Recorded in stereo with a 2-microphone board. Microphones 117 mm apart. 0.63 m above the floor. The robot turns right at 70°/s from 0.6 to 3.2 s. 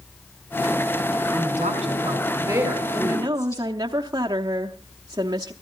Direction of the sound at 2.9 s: 20° right (ahead or behind).